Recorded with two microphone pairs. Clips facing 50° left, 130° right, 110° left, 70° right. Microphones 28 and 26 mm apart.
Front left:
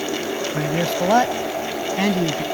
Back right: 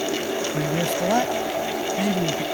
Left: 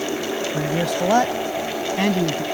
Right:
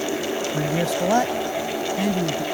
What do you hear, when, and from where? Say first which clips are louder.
0.5 s a man speaking: front left 4 dB, left 1 dB; 10° left; by 2.4 s 80° left